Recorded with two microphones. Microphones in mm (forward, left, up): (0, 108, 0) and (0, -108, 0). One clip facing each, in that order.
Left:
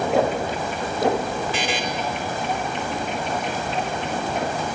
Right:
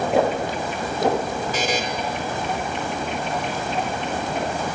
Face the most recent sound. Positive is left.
turn(degrees=-45)  # may be behind; listen again after turning